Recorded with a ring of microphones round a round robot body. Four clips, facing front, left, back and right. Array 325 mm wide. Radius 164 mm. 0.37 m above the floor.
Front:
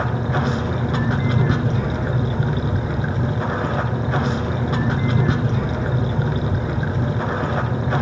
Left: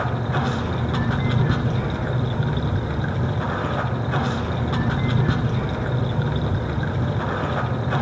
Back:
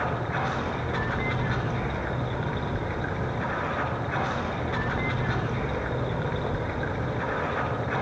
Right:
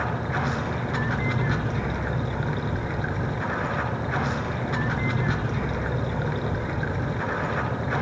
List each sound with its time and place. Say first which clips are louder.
0.0 s running water: left 3 dB, front 6 dB; 25° left, 3 m